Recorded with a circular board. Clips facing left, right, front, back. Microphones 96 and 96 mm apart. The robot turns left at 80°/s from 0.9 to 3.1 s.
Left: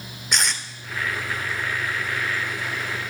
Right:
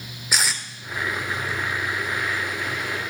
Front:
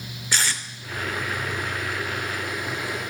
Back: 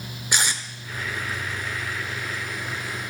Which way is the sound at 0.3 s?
165° right.